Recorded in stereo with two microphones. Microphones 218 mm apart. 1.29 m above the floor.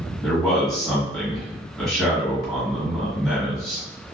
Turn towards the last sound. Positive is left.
turn(degrees=0)  # may be behind; listen again after turning